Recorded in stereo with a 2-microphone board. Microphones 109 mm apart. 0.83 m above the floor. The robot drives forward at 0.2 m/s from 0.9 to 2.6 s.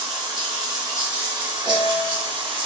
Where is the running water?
40° right (ahead or behind), 1.1 m; by 2.7 s 45° right (ahead or behind), 0.9 m.